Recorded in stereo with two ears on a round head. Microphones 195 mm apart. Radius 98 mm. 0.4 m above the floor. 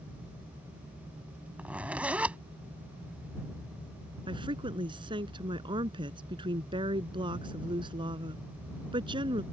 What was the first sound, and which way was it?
A zipper, 5° right (ahead or behind).